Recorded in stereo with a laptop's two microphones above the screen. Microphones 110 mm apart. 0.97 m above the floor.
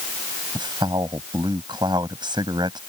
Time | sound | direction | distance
0.6 | a man speaking | 40° right (ahead or behind) | ?